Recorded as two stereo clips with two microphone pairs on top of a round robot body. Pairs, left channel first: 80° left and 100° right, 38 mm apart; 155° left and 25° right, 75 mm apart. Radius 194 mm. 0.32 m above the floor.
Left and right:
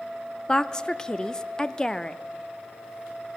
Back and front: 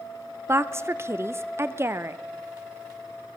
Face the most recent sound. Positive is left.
turn(degrees=0)